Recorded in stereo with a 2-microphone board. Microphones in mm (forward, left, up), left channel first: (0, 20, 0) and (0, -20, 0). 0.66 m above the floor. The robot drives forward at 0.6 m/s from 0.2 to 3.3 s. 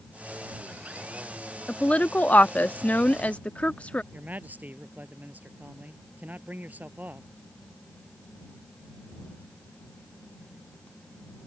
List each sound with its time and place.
1.7 s a woman speaking: 30° left (ahead or behind); by 4.0 s 35° left (ahead or behind)
4.1 s a man speaking: 45° right (ahead or behind)